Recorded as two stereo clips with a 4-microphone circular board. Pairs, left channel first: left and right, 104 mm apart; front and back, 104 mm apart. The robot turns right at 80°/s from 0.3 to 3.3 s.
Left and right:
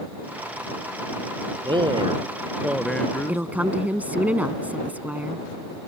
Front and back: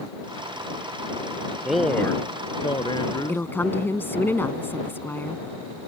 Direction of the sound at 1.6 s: 95° right.